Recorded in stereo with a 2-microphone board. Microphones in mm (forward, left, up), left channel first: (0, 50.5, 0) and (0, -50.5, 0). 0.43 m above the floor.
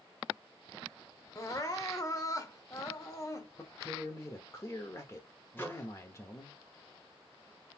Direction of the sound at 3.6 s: 30° left (ahead or behind).